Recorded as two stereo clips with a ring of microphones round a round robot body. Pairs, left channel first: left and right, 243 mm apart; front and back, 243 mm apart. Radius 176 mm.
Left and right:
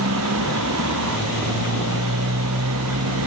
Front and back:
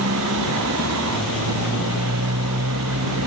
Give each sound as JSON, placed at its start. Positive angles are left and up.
{"t": 0.0, "sound": "a motorcycle", "azimuth_deg": -135}